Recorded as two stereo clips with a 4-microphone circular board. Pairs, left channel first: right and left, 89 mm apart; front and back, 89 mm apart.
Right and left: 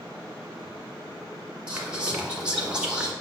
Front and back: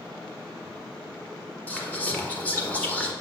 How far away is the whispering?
About 1.6 m.